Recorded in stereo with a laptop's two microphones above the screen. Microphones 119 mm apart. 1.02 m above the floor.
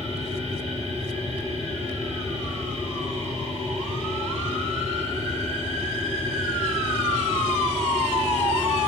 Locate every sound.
0.0 s a machine running: 60° right (ahead or behind), 1.0 m